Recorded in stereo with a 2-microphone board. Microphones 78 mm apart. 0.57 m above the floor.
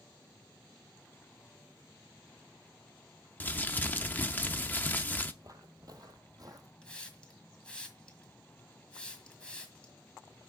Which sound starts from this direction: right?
Footsteps, at 5.4 s.